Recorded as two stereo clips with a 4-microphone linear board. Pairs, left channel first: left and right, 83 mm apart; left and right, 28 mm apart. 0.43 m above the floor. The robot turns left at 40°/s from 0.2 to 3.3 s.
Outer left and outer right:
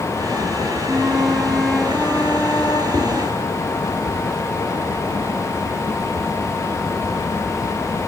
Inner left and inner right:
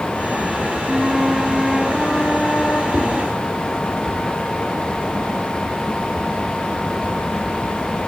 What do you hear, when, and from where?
0.9 s a flute: 155° right, 1.8 m; by 2.8 s 125° left, 1.8 m
2.9 s a whoosh: 40° right (ahead or behind), 3 m; by 3.0 s 35° right (ahead or behind), 3 m